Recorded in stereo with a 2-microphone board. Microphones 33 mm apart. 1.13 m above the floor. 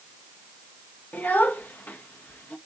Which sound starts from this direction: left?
A child speaking, at 1.1 s.